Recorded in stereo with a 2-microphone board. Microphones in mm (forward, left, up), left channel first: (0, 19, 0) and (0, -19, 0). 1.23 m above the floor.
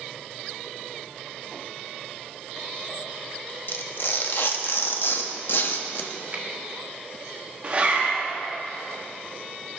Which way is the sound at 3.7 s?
65° left (ahead or behind).